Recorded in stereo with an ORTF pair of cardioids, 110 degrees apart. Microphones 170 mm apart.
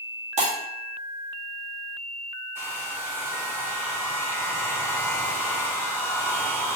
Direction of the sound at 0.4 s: 45° right.